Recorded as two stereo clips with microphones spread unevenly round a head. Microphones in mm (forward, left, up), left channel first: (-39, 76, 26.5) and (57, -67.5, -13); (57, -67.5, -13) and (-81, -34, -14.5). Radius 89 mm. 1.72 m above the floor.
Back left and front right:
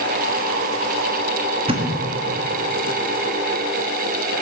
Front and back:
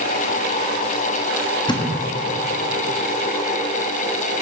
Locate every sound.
1.7 s a thud: straight ahead, 1.2 m